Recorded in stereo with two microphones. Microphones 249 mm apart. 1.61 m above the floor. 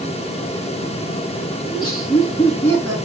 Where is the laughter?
20° left (ahead or behind), 4 m; by 3.0 s 10° left (ahead or behind), 4 m.